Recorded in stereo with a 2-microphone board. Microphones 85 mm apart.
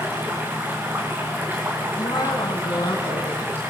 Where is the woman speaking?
60° left (ahead or behind), 3 m.